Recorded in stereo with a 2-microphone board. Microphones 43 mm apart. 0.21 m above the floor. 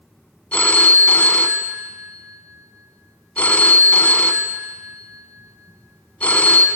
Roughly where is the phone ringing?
Left.